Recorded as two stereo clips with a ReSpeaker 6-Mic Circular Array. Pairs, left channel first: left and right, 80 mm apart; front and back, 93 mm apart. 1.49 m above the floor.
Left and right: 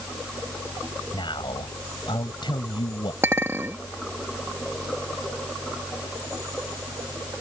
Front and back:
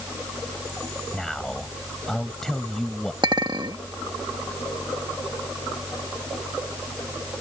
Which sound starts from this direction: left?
A man speaking, at 1.1 s.